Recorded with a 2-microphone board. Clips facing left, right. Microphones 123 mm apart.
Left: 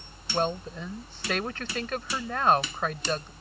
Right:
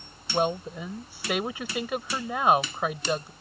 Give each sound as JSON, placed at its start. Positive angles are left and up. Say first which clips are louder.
{"t": 0.3, "sound": "a woman speaking", "louder": "right 2 dB", "side_deg": -10}